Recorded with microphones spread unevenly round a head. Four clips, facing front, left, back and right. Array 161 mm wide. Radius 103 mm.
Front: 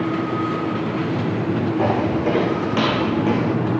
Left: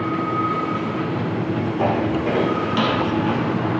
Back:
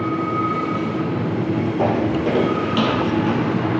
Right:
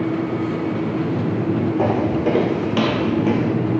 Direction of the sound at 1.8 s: 120° right.